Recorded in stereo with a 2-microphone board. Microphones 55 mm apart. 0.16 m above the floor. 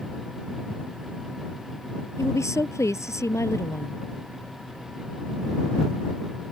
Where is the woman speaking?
65° left (ahead or behind).